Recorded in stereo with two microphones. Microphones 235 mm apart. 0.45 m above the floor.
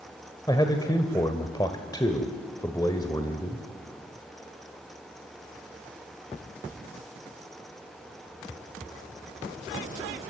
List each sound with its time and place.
0.5 s a man speaking: 15° left (ahead or behind), 1.6 m